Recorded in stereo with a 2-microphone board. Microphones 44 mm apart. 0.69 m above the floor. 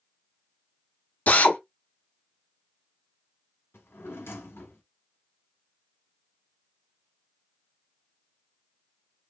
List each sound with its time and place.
1.3 s a drill: 40° left (ahead or behind), 0.6 m
3.7 s a drawer: 80° left, 1.0 m